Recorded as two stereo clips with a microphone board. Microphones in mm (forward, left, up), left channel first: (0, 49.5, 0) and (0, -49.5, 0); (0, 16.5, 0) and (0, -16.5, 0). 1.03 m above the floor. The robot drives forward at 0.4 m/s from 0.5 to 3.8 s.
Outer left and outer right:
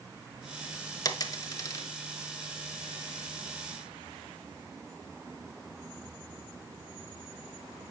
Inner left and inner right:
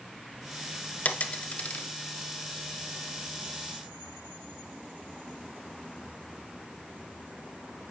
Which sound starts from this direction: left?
A dropped coin, at 1.1 s.